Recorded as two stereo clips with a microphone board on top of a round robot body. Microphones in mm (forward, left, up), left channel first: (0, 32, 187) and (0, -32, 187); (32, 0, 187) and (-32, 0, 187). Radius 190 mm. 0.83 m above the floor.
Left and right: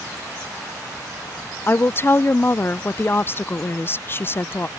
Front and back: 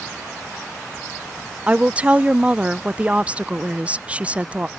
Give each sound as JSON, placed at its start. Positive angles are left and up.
{"t": 1.7, "sound": "a woman speaking", "azimuth_deg": 120}